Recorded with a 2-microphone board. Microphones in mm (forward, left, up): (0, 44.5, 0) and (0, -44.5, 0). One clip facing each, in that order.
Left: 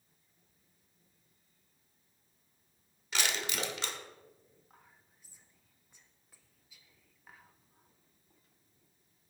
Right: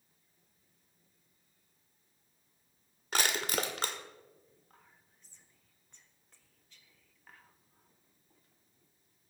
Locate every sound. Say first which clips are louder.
3.1 s crushing: right 3 dB; 45° right (ahead or behind), 1.4 m
4.7 s whispering: left 1 dB; 10° left (ahead or behind), 1.5 m